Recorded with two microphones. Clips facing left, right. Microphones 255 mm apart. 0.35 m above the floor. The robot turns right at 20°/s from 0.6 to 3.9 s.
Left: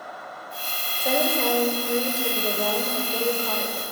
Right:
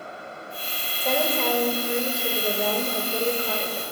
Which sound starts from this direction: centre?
A woman speaking, at 1.0 s.